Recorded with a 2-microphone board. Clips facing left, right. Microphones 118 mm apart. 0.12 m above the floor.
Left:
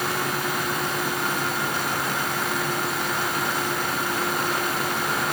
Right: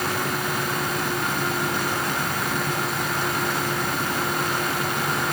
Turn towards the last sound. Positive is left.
No sound to turn to.